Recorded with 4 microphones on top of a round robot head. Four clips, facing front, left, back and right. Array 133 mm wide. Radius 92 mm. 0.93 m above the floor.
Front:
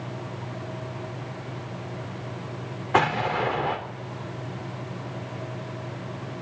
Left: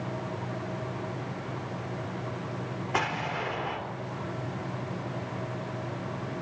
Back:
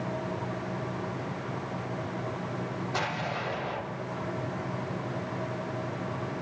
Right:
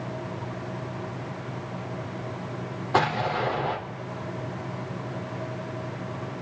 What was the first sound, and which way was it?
An explosion, 35° right.